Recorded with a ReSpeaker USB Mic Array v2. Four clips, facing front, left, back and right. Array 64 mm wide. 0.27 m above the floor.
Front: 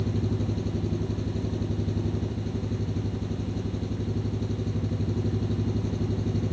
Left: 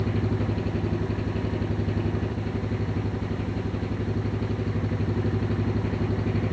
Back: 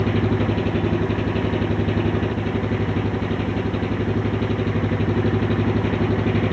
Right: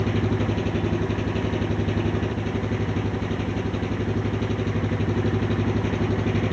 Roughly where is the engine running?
Behind.